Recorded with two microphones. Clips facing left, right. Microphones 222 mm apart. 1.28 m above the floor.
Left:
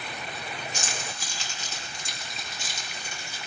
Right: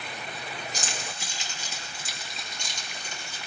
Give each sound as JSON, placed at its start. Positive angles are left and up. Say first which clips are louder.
{"t": 0.7, "sound": "keys jangling", "louder": "even", "side_deg": -35, "distance_m": 1.5}